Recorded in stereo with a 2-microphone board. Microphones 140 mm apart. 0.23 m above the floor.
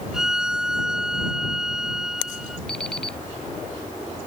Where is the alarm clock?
5° left (ahead or behind).